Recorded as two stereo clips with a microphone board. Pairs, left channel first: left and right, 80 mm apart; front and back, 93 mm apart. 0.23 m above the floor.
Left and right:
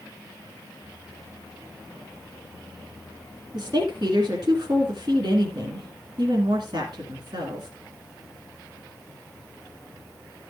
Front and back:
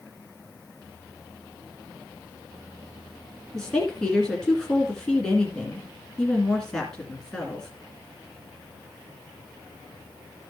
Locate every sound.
3.5 s a woman speaking: 80° right, 2 m